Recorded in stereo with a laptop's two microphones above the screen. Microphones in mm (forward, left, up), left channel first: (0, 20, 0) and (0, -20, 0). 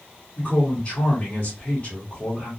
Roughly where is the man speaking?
Left.